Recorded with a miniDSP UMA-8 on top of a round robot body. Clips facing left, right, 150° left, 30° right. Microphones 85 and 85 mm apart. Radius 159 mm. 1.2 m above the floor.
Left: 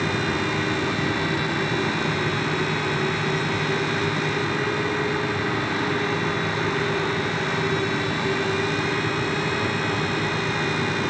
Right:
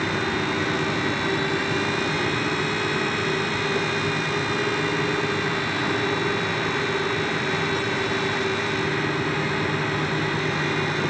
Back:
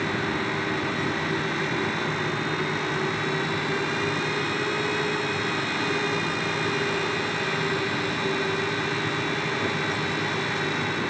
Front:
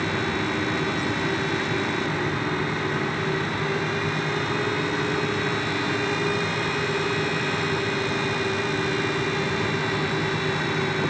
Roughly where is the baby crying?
I don't hear a baby crying.